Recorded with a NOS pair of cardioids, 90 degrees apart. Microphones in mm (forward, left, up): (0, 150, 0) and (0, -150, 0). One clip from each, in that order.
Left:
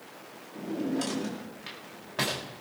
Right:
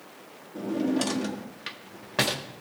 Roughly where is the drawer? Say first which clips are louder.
Right 4 dB; ahead right.